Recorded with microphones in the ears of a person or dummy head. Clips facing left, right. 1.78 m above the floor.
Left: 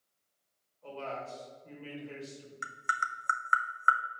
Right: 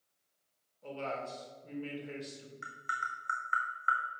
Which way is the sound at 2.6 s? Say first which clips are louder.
Left 7 dB; 60° left (ahead or behind).